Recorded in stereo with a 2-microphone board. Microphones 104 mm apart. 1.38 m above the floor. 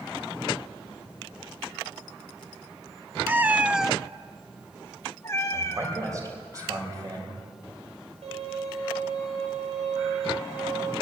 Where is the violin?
80° right, 10 m.